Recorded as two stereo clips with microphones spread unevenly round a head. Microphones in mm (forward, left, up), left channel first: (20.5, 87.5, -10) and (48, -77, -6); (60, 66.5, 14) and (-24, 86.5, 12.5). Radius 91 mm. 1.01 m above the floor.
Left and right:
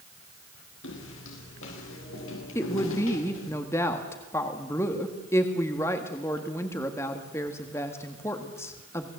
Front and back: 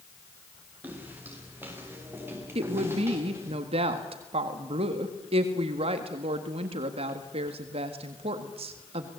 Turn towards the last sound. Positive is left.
turn(degrees=175)